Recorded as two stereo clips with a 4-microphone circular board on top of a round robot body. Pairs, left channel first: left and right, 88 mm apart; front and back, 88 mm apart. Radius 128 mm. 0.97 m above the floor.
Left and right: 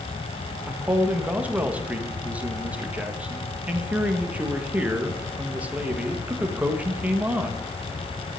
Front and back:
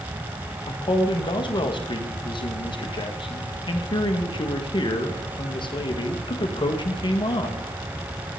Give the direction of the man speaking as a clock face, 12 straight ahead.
1 o'clock.